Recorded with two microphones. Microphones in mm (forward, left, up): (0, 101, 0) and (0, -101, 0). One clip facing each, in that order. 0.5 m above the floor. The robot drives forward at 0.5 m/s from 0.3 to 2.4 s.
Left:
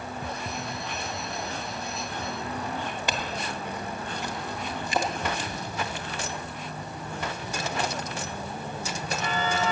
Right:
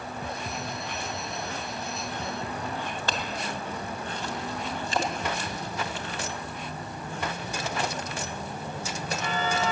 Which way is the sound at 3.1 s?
15° left (ahead or behind).